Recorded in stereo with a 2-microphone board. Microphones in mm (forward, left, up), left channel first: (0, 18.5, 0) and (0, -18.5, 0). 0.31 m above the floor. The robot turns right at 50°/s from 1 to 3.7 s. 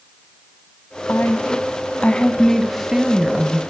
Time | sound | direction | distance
1.1 | a woman speaking | 100° left | 2 m